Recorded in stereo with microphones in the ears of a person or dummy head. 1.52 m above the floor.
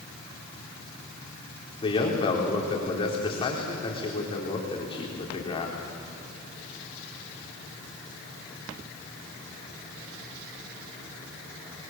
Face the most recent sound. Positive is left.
turn(degrees=30)  # may be behind; listen again after turning